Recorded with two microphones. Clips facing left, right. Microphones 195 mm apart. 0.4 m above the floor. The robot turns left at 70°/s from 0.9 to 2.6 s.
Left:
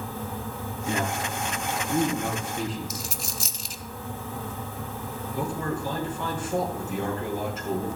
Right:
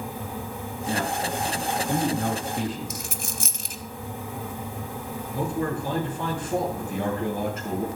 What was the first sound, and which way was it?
A man speaking, 15° left (ahead or behind).